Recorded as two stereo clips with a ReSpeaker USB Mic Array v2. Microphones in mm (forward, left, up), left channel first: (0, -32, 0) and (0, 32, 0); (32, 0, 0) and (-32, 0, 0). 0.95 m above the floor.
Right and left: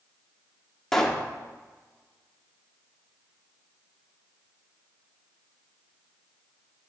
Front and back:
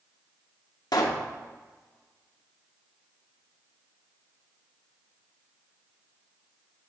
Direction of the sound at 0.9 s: 5° right.